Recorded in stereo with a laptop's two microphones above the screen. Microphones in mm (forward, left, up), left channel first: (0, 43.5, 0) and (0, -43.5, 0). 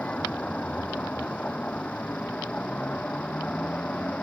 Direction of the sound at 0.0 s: 15° left (ahead or behind).